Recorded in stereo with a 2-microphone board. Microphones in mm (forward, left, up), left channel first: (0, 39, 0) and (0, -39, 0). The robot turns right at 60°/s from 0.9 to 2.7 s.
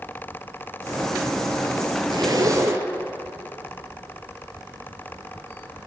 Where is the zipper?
70° right, 1.0 m; by 2.9 s 35° right, 1.0 m.